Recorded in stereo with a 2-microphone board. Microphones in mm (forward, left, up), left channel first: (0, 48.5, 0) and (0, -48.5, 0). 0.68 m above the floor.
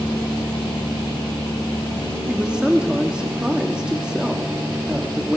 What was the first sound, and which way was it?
A woman speaking, 10° right (ahead or behind).